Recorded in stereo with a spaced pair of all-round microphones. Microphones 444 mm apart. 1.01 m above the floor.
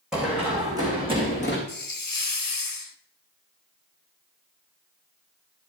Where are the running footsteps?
Centre (ahead or behind), 4.5 m; by 1.6 s 15° right (ahead or behind), 4.5 m.